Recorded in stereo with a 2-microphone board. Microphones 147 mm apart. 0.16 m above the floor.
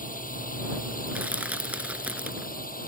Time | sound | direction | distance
0.0 | a drone | 70° left (ahead or behind) | ?
1.1 | crushing | 10° right (ahead or behind) | ?